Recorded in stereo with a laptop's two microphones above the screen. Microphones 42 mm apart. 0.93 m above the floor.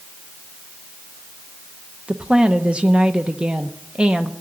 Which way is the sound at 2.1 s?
25° right (ahead or behind).